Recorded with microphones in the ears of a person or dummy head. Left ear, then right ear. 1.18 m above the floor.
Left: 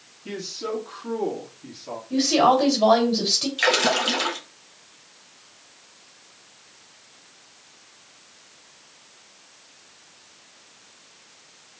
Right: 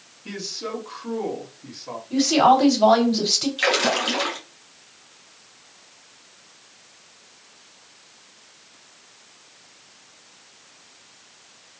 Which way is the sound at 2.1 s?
5° right (ahead or behind).